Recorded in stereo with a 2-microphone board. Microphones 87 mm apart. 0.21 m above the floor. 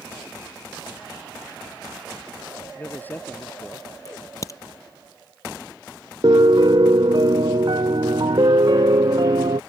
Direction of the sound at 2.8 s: 25° left (ahead or behind).